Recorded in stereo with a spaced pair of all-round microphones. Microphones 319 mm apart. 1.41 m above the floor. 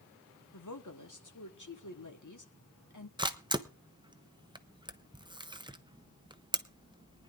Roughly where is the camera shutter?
Centre.